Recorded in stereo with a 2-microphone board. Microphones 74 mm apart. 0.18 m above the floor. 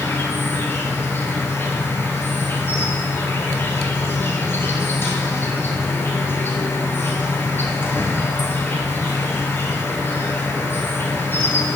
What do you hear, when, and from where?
0.0 s an insect: 30° left (ahead or behind), 1.1 m